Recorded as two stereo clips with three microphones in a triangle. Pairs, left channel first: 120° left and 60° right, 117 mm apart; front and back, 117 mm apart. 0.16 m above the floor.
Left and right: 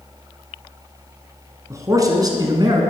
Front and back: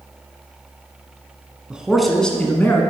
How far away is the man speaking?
About 1.2 m.